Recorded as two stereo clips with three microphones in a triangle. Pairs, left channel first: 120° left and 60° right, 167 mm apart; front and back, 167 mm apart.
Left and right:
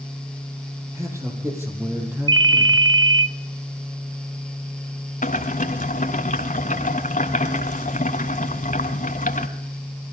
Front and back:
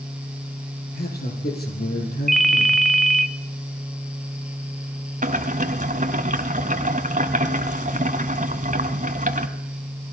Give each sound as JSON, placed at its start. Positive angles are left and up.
{"t": 0.9, "sound": "a man speaking", "azimuth_deg": 10, "distance_m": 8.0}
{"t": 2.3, "sound": "a ringtone", "azimuth_deg": -85, "distance_m": 0.8}
{"t": 5.2, "sound": "boiling", "azimuth_deg": 150, "distance_m": 1.8}